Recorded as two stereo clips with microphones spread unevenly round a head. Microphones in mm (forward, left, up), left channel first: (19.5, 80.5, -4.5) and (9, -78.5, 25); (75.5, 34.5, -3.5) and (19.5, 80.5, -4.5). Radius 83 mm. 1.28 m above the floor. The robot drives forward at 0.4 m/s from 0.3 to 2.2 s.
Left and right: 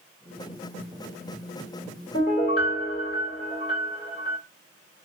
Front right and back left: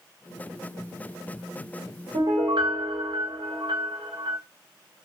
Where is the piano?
140° left, 2.0 m.